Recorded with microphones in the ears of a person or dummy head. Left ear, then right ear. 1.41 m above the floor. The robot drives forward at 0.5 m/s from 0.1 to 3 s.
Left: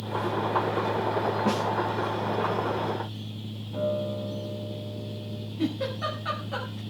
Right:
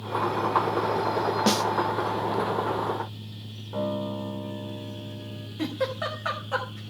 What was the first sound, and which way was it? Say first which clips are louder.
A snare drum: right 3 dB; 80° right.